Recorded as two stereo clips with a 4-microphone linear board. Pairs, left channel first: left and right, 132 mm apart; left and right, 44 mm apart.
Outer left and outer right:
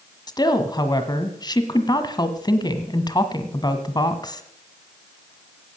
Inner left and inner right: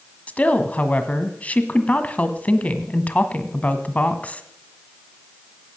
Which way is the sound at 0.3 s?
30° left (ahead or behind).